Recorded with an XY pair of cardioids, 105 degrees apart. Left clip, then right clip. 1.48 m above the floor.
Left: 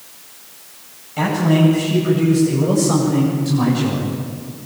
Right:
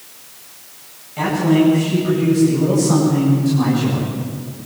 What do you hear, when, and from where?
1.2 s a man speaking: 30° left, 9.5 m